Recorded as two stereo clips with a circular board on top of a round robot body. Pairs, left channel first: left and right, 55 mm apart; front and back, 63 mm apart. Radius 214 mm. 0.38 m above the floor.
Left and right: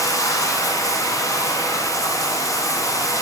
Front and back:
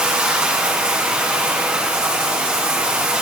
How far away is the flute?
No flute in this recording.